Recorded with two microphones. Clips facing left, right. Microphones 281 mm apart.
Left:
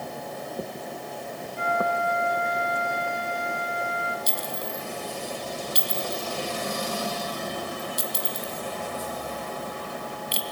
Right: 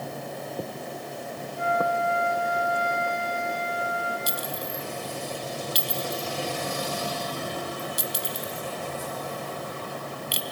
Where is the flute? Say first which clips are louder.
Right 1 dB; 90° left, 3.5 m.